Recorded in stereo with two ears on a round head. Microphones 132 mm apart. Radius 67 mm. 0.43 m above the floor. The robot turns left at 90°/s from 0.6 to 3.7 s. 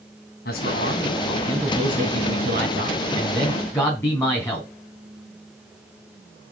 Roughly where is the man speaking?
Left.